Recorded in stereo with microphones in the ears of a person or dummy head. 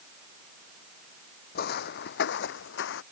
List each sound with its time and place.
1.6 s footsteps: 60° left (ahead or behind); by 3.0 s 75° left (ahead or behind)